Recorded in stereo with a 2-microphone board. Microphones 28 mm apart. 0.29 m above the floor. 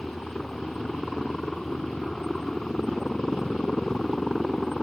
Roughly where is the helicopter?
Centre.